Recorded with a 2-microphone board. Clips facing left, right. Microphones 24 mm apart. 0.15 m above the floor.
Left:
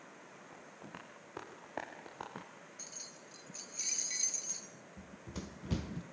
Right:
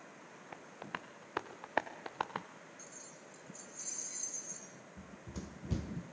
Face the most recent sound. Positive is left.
turn(degrees=30)  # may be behind; listen again after turning